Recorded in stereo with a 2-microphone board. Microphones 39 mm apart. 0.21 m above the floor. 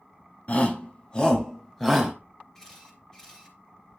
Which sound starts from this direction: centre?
A camera shutter, at 2.5 s.